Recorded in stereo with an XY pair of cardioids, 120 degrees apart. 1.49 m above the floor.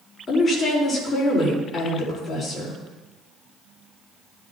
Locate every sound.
0.3 s a woman speaking: 30° left, 4.5 m